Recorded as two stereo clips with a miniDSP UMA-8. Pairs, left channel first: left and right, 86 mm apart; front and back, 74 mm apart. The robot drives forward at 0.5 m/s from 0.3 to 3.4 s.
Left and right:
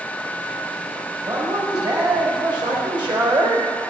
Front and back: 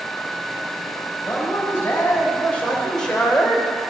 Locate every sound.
1.3 s a man speaking: 50° right, 1.9 m; by 3.7 s 85° right, 1.5 m